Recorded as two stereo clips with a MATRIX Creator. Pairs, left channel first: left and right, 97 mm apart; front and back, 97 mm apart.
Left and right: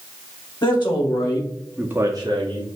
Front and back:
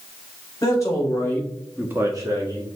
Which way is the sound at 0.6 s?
55° left.